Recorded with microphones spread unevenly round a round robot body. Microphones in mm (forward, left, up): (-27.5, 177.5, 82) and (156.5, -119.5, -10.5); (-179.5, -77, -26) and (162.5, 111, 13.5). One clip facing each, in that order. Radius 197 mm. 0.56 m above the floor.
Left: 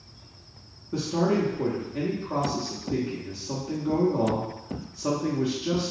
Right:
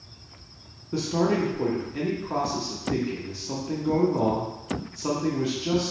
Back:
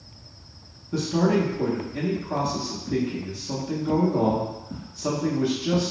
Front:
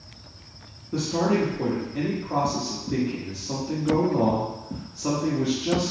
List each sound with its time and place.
0.9 s a man speaking: 95° right, 0.6 m